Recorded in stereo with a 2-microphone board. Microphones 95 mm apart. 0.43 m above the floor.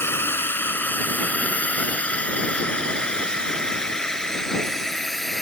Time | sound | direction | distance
0.0 | a drone | 25° left (ahead or behind) | ?